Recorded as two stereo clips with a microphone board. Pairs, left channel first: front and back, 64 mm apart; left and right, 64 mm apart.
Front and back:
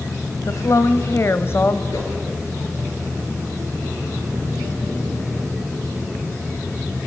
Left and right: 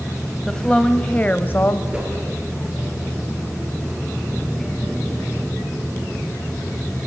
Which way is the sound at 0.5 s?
10° left.